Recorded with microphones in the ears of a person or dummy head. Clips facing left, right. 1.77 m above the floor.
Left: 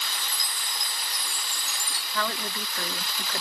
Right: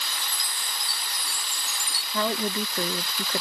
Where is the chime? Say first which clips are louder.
Even; 15° left (ahead or behind).